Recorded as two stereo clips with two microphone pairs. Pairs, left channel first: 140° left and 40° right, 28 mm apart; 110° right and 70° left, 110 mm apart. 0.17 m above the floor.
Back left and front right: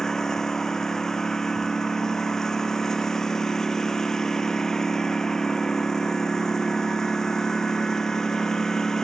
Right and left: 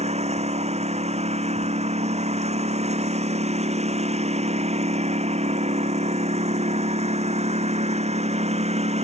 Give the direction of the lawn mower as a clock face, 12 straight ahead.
10 o'clock.